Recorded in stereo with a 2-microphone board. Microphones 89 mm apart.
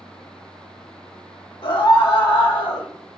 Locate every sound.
1.6 s a scream: 70° left (ahead or behind), 3 m; by 2.9 s 80° left, 2.5 m